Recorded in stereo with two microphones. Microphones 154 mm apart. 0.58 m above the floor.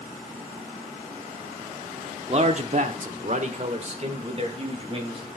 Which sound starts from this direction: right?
A man speaking, at 2.3 s.